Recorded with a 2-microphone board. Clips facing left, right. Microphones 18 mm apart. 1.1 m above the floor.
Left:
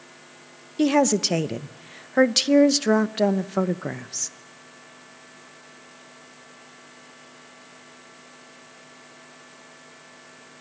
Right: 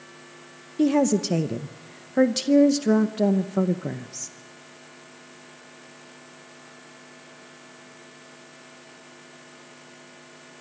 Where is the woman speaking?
30° left (ahead or behind), 0.7 m.